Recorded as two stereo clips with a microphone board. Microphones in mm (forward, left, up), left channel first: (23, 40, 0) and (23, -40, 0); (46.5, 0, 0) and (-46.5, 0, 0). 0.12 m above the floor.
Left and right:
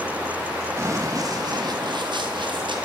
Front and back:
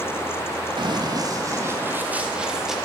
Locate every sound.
0.8 s running footsteps: 145° right, 1.3 m; by 2.8 s 95° right, 1.7 m